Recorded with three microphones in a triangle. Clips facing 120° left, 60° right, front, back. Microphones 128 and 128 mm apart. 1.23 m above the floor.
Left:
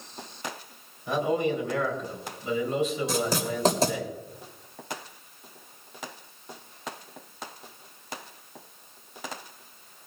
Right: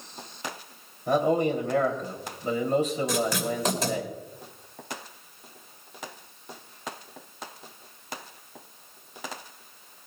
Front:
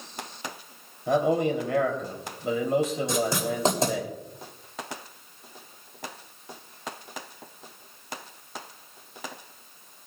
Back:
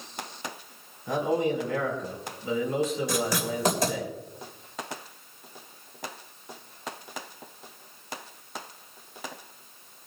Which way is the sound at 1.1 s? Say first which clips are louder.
Right 3 dB, front 3 dB; 15° right.